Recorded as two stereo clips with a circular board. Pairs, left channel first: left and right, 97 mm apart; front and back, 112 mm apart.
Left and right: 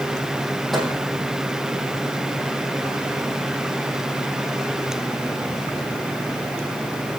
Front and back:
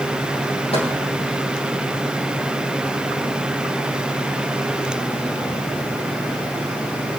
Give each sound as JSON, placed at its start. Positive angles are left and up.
{"t": 0.7, "sound": "a microwave", "azimuth_deg": 0, "distance_m": 4.0}